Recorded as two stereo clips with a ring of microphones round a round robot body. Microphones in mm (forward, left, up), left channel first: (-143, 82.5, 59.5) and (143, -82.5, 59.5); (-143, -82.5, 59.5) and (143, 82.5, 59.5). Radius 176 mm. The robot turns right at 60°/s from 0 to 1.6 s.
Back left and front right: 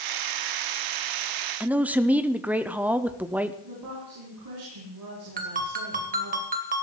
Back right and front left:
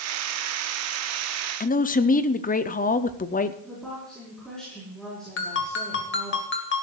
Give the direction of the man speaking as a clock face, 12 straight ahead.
4 o'clock.